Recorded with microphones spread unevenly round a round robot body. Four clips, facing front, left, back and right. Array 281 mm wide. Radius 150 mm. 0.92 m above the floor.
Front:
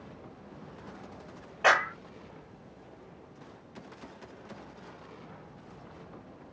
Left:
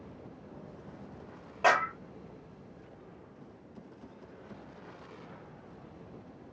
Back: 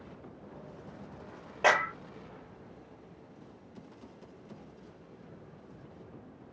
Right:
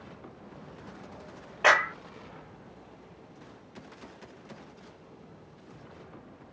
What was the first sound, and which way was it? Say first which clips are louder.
A clap: right 2 dB, front 1 dB; 175° left.